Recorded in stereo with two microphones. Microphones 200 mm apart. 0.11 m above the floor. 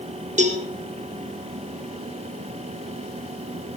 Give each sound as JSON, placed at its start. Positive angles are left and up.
{"t": 0.4, "sound": "a cowbell", "side_deg": -40, "distance_m": 1.7}